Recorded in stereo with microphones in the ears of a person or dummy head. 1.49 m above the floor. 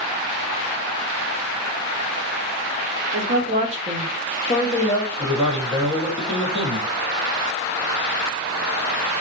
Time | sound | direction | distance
3.1 | a woman speaking | 55° right (ahead or behind) | 0.9 m
5.2 | a man speaking | 5° right (ahead or behind) | 1.4 m